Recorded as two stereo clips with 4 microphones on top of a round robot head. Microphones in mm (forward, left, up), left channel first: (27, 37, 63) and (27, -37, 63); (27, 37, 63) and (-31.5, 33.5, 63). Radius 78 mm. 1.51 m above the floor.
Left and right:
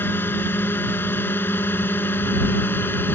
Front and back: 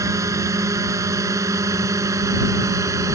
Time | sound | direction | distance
0.0 | a drone | 155° left | ?